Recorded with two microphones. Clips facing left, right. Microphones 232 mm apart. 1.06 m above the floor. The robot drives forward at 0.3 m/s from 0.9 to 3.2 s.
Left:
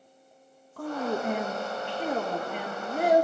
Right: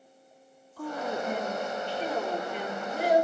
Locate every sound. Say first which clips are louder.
0.8 s a woman speaking: left 3 dB; 65° left (ahead or behind), 1.3 m; by 3.2 s 50° left (ahead or behind), 1.6 m